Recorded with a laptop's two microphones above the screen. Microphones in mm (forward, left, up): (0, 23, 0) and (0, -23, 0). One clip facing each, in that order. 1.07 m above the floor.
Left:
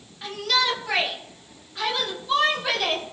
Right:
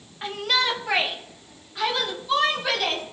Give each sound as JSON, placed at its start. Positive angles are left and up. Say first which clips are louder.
{"t": 0.2, "sound": "a shout", "louder": "even", "side_deg": -25, "distance_m": 1.5}